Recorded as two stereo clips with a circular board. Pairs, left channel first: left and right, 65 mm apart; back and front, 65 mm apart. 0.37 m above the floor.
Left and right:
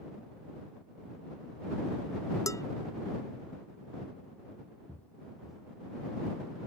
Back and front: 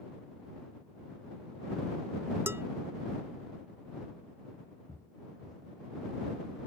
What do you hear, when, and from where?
2.5 s dishes clattering: 55° left
4.9 s footsteps: 140° left; by 6.6 s 155° right